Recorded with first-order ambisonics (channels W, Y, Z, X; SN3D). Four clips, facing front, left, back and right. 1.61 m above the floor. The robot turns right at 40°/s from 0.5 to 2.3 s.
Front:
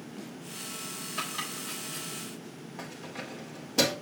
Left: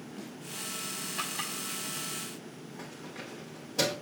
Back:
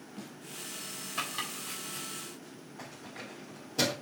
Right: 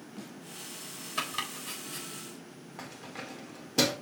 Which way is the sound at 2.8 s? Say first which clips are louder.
Right 2 dB, front 5 dB; 50° right.